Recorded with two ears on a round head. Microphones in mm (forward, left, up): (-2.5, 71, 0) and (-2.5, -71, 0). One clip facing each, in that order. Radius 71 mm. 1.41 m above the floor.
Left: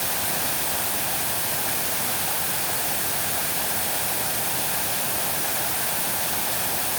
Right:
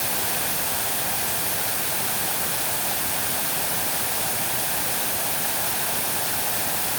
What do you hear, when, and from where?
Only background noise.